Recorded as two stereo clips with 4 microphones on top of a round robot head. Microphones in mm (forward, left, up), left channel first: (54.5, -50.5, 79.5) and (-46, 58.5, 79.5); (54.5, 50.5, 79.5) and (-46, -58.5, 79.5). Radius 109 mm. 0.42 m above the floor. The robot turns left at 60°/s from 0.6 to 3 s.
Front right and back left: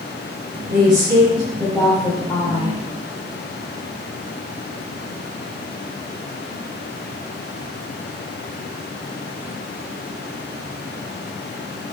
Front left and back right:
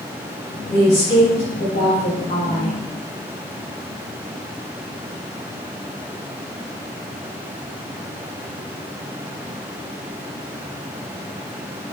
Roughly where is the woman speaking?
Behind left.